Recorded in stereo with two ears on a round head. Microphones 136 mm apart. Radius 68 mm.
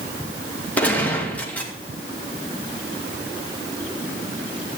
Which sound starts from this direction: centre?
A gunshot, at 0.8 s.